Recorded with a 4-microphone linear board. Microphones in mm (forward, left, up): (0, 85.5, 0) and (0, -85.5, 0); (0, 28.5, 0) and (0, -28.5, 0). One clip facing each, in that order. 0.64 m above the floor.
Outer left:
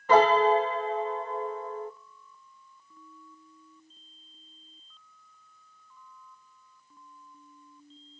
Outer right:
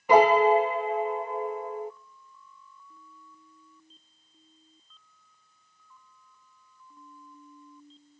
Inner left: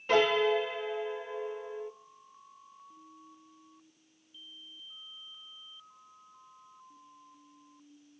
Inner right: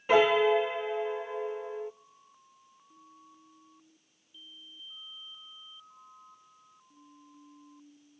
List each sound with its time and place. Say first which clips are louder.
0.1 s a piano: outer right 2 dB, inner right 3 dB; 10° right (ahead or behind), 0.6 m